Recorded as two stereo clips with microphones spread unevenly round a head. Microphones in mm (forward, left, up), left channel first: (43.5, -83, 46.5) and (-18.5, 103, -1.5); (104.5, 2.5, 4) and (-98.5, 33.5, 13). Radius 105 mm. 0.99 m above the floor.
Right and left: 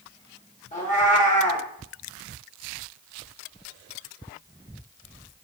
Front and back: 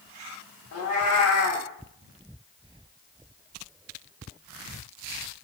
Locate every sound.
0.7 s a cat meowing: 25° right, 1.0 m